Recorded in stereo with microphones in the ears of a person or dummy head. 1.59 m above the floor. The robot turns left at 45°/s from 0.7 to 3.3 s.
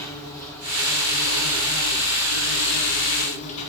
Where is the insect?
160° left, 1.2 m; by 3.7 s 40° left, 1.2 m.